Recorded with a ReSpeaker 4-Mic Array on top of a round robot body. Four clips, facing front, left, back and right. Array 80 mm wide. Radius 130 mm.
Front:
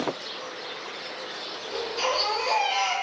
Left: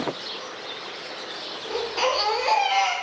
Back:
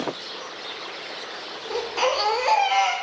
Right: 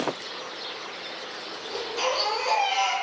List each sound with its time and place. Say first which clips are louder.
1.7 s a baby crying: left 4 dB, back 4 dB; 155° left, 0.7 m